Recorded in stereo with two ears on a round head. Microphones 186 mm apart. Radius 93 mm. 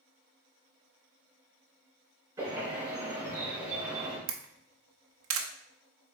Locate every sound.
2.4 s a bird: 15° right (ahead or behind), 2.5 m
4.3 s a camera shutter: 75° right (ahead or behind), 0.7 m